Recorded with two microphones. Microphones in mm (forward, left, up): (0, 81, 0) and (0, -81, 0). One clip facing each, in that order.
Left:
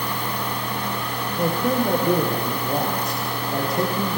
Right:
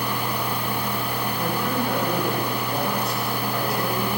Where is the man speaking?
45° left (ahead or behind), 8 m.